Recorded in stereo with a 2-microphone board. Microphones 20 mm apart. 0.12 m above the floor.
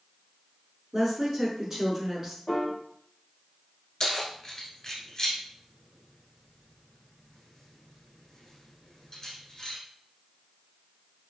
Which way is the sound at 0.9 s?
20° right (ahead or behind).